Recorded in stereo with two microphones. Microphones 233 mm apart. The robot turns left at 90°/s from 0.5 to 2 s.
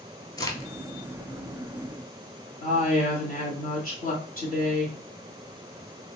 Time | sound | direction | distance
0.4 | a crack | 15° left (ahead or behind) | 0.7 m
2.6 | a woman speaking | 35° left (ahead or behind) | 1.4 m